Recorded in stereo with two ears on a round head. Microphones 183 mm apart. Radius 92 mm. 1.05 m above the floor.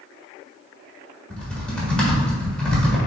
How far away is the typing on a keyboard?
About 1.4 m.